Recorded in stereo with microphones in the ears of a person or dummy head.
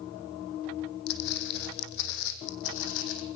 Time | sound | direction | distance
1.1 | footsteps | 60° left (ahead or behind) | 3 m